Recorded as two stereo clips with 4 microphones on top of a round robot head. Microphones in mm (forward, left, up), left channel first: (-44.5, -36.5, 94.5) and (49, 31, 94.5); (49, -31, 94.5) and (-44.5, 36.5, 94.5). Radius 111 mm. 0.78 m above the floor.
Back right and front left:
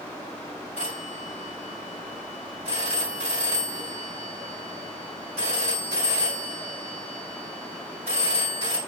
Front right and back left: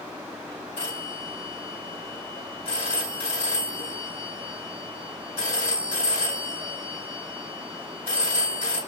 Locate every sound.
0.8 s a phone ringing: 5° left, 5.5 m